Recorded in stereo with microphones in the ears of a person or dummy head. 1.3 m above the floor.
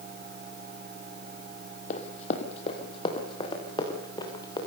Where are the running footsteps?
40° left (ahead or behind), 3 m; by 4.6 s 20° left (ahead or behind), 6.5 m.